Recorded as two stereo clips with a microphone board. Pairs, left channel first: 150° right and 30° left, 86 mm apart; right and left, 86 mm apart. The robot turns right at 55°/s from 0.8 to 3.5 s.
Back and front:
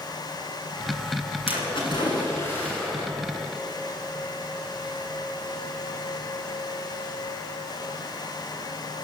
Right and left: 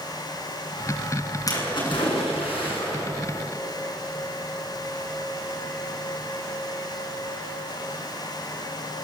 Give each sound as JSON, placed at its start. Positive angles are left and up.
{"t": 1.5, "sound": "a splash", "azimuth_deg": -140, "distance_m": 8.5}